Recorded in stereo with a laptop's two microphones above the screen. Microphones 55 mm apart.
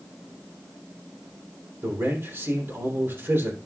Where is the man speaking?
40° right (ahead or behind), 3 m.